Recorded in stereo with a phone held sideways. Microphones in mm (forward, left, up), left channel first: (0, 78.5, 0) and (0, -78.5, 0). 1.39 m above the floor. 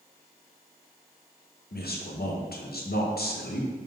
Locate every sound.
1.7 s a man speaking: 85° left, 0.6 m